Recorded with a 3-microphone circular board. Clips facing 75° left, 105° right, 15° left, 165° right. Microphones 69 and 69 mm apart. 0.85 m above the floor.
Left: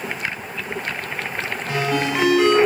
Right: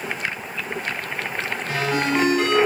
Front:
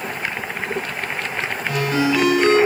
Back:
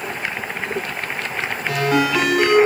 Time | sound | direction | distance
1.7 | a ringtone | 165° left | 2.5 m